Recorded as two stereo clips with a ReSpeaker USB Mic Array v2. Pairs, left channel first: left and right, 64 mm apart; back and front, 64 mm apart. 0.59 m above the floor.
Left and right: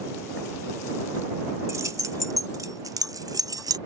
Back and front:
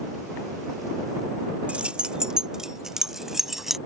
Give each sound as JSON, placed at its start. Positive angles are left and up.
{"t": 1.7, "sound": "keys jangling", "azimuth_deg": -65}